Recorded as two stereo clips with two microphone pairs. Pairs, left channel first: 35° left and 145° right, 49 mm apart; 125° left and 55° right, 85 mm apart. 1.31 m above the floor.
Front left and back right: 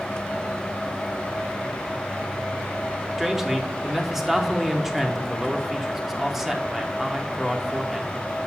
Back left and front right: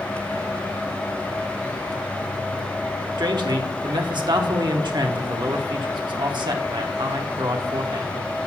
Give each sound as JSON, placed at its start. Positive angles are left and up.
{"t": 3.2, "sound": "a man speaking", "azimuth_deg": -60, "distance_m": 1.1}